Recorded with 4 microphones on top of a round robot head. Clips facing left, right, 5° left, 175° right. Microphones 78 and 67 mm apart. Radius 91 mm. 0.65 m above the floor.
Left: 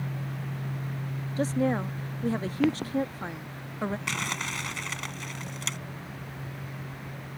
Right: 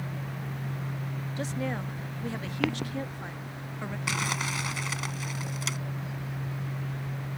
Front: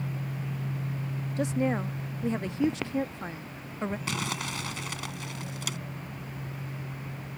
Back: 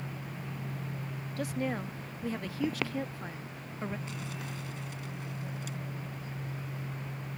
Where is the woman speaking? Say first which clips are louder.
Left 7 dB, front 6 dB; 60° left.